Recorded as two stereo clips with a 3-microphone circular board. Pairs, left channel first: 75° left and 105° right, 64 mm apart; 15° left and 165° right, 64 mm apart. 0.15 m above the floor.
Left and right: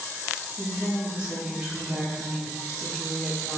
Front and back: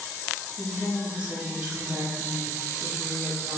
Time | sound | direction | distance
0.6 | a woman speaking | 140° right | 1.6 m